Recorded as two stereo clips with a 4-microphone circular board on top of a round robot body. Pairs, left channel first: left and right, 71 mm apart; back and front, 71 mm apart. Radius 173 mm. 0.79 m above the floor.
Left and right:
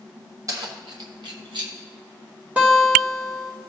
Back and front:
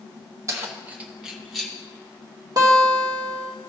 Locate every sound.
0.5 s keys jangling: 50° right, 1.0 m; by 1.7 s 95° right, 1.4 m
2.6 s a guitar: 20° right, 1.5 m